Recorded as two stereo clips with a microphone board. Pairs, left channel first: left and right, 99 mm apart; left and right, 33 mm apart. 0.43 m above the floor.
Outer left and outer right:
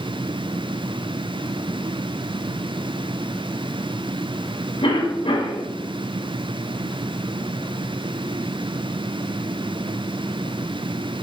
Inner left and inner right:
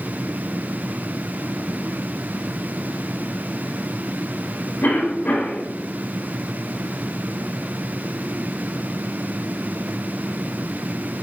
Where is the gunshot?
No gunshot in this recording.